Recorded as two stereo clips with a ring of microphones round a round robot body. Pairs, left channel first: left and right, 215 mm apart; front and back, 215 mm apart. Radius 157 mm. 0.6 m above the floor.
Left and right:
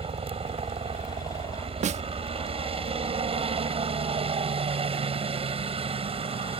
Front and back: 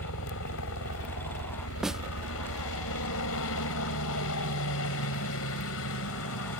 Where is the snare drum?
95° right.